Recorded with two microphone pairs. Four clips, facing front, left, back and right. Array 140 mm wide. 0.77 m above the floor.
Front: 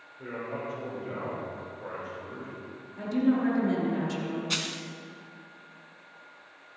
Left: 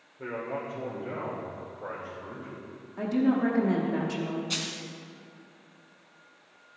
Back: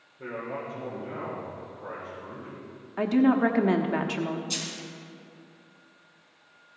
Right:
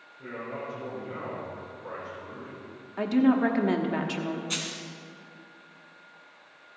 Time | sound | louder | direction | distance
0.2 | a man speaking | left 3 dB, back 1 dB | 90° left | 2.5 m
3.0 | a woman speaking | right 3 dB, back 4 dB | 145° right | 1.1 m
4.5 | a dropped coin | even, front 2 dB | 5° right | 1.0 m